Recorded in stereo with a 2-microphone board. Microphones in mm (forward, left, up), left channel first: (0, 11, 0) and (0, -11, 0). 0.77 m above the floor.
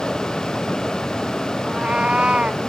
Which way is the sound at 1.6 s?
65° right (ahead or behind).